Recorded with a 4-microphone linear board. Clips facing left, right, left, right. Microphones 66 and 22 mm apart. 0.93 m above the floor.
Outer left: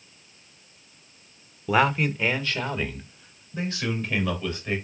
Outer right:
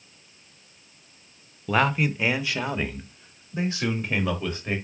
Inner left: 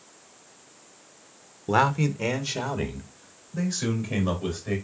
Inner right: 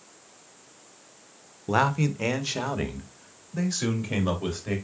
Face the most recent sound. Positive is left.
turn(degrees=-25)  # may be behind; listen again after turning